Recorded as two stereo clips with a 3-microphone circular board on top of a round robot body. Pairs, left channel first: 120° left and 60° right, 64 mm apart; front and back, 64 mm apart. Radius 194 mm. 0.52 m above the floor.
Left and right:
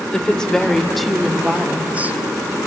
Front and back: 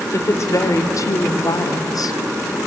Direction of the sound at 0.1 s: 45° left.